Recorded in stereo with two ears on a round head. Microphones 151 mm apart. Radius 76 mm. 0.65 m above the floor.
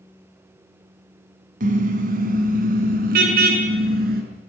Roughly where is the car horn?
Right.